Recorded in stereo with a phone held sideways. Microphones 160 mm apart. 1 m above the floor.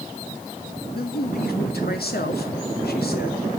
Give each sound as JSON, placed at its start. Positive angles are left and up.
{"t": 0.9, "sound": "a man speaking", "side_deg": 80, "distance_m": 2.0}